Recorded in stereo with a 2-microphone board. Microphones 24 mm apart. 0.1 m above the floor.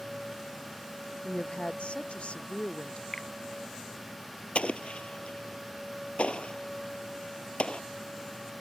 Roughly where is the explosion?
Left.